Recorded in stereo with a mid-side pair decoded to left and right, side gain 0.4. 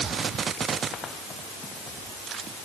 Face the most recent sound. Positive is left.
No sound to turn to.